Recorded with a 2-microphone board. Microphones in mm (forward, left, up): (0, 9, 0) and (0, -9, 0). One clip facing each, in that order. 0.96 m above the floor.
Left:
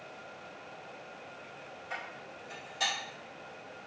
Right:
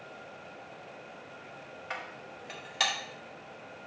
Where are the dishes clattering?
40° right (ahead or behind), 1.2 m.